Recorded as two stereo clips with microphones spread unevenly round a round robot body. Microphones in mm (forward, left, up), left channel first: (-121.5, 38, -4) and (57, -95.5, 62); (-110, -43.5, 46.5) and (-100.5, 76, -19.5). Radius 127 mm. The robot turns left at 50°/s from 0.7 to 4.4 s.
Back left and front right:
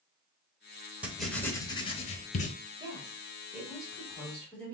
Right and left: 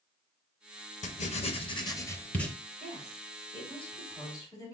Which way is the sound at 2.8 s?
110° right.